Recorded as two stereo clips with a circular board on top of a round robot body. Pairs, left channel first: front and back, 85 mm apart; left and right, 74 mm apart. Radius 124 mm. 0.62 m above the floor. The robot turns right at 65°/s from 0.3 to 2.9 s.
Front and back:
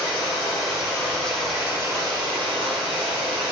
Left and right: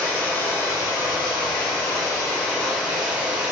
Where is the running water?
20° left, 1.3 m; by 3.5 s 170° right, 1.3 m.